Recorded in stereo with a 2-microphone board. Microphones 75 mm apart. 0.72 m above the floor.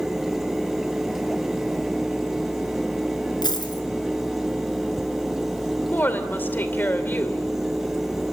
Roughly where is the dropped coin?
Left.